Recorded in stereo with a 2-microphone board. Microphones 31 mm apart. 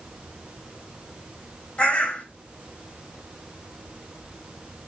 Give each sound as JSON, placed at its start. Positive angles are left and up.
{"t": 1.8, "sound": "a bird", "side_deg": 40, "distance_m": 3.0}